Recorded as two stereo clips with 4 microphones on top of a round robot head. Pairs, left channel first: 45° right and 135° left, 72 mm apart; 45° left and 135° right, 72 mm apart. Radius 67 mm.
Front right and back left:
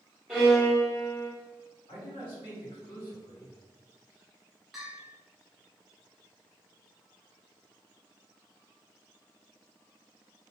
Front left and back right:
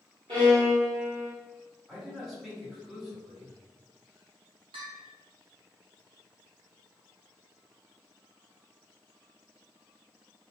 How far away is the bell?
About 0.6 m.